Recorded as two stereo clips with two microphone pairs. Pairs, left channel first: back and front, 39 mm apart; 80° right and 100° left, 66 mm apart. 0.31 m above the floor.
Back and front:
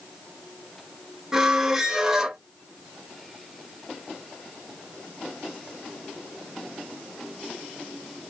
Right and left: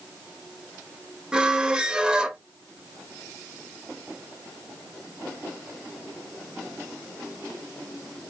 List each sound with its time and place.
1.3 s a squeak: 35° left, 0.8 m